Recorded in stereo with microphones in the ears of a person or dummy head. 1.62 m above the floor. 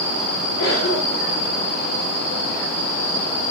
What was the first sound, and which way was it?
A cough, 70° left (ahead or behind).